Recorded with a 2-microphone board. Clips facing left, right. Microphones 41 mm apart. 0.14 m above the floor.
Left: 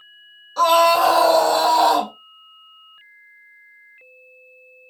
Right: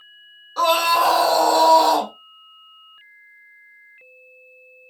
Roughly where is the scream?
Centre.